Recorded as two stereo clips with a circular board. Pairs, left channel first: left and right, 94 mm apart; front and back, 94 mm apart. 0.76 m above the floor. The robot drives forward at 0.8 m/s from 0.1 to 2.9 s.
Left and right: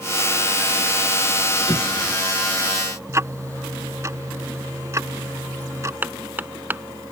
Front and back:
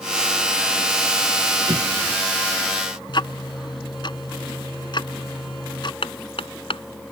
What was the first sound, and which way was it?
An explosion, 135° left.